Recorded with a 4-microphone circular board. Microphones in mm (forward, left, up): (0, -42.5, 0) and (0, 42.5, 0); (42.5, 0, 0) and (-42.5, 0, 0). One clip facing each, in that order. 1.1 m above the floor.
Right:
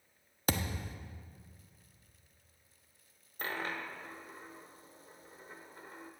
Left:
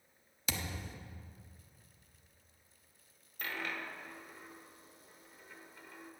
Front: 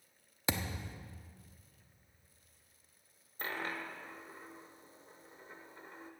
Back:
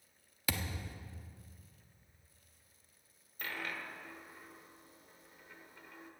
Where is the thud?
60° right, 0.7 m.